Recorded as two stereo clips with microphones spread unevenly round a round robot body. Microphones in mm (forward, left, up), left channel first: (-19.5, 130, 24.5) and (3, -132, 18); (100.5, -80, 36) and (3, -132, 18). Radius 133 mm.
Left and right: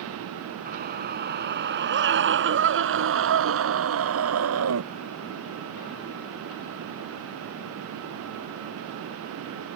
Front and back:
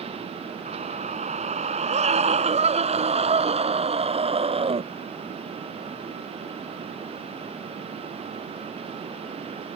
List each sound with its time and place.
0.7 s a scream: 145° right; by 4.8 s 120° right